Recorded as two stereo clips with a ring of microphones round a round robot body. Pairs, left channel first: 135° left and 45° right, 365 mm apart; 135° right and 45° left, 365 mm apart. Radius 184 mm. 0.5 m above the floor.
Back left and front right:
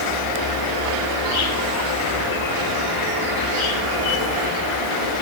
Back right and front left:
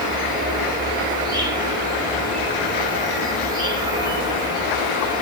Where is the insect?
125° left, 0.9 m.